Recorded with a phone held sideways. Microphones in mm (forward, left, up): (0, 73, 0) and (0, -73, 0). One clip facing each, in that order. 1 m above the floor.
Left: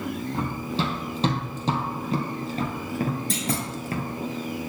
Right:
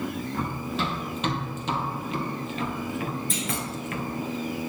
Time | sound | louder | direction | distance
0.3 | running footsteps | left 2 dB | 30° left (ahead or behind) | 2.5 m
3.3 | a clunk | left 3 dB | 75° left (ahead or behind) | 1.9 m